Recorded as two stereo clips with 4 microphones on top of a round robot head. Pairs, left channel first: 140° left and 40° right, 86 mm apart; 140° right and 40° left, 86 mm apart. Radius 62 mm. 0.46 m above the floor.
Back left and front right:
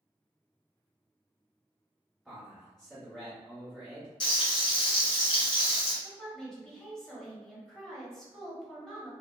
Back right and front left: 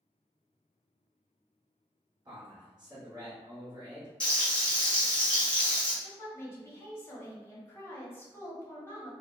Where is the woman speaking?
145° right, 1.0 m.